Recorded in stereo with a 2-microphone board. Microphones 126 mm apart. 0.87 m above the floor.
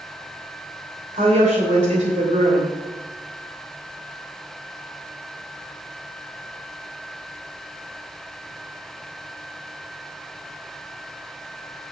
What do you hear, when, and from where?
1.1 s a woman speaking: 70° right (ahead or behind), 3 m